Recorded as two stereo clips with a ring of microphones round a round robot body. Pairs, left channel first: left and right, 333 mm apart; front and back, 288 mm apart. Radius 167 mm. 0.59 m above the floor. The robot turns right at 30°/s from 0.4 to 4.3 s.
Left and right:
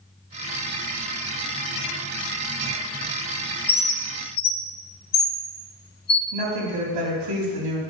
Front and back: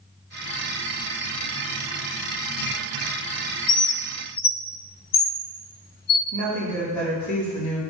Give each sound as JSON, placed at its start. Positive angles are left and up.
{"t": 3.7, "sound": "a bird", "azimuth_deg": 25, "distance_m": 0.5}
{"t": 6.3, "sound": "a woman speaking", "azimuth_deg": -85, "distance_m": 4.5}